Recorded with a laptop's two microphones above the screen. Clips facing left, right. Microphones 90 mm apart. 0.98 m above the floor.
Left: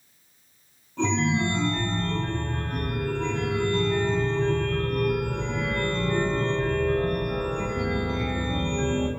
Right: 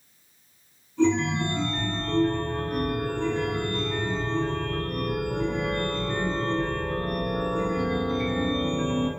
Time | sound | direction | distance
1.0 | a chime | 80° left | 4 m